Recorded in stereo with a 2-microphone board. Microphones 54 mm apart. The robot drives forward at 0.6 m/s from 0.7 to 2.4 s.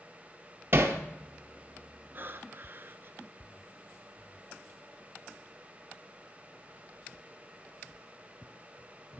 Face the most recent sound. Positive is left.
turn(degrees=-40)  # may be behind; listen again after turning